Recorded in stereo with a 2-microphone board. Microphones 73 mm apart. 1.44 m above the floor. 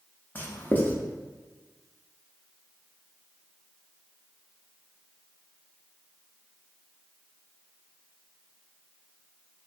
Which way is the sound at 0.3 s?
25° left (ahead or behind).